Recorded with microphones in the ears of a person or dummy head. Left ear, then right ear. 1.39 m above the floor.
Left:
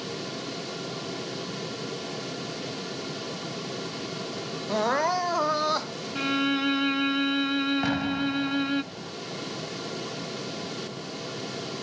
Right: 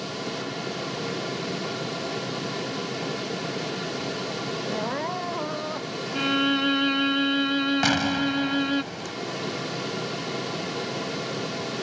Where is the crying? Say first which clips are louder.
Left 8 dB; 45° left (ahead or behind).